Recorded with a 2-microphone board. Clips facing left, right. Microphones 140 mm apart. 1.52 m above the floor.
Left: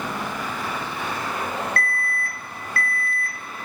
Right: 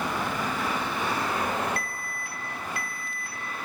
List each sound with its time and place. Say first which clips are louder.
1.8 s an alarm: left 8 dB; 15° right (ahead or behind), 5.5 m